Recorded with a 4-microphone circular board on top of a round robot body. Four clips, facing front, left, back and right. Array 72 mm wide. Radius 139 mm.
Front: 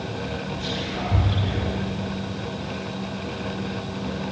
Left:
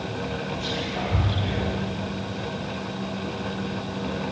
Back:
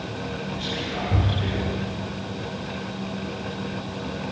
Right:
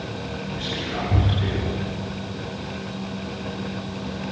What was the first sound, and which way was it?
Whispering, 100° right.